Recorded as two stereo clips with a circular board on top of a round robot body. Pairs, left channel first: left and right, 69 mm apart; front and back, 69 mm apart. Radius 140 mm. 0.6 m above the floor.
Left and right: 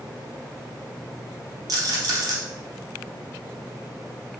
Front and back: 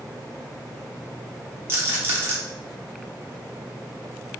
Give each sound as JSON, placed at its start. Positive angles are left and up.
{"t": 1.7, "sound": "a rattle", "azimuth_deg": -125, "distance_m": 1.2}